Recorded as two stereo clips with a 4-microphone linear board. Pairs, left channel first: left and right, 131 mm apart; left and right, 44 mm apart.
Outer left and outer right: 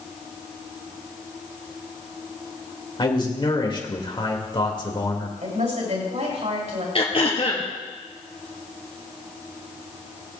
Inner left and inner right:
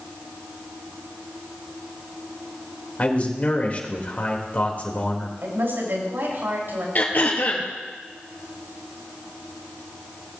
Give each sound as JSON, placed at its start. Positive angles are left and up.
{"t": 3.0, "sound": "a man speaking", "side_deg": 40, "distance_m": 2.0}
{"t": 5.4, "sound": "a woman speaking", "side_deg": -65, "distance_m": 5.5}
{"t": 7.0, "sound": "throat clearing", "side_deg": 45, "distance_m": 2.0}